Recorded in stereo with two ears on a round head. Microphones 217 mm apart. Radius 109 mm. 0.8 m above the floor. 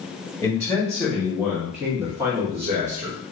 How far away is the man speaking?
About 1.5 m.